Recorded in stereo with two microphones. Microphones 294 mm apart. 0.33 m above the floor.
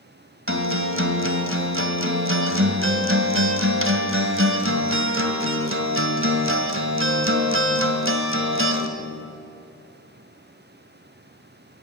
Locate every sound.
0.5 s a guitar: 45° right (ahead or behind), 2.5 m